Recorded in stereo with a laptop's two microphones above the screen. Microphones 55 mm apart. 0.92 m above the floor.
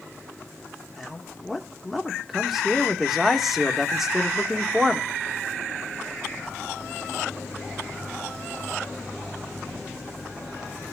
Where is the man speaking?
Centre (ahead or behind), 2 m.